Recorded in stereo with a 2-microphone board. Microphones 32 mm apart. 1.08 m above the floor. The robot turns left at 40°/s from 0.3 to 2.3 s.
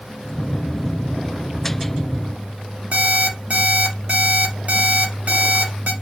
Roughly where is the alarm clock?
Right.